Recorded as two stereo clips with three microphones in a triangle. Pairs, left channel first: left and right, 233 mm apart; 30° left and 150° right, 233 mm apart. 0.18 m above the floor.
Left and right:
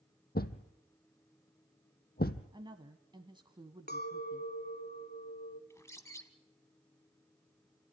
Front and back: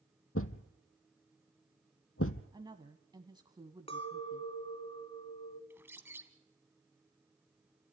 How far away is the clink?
About 1.0 m.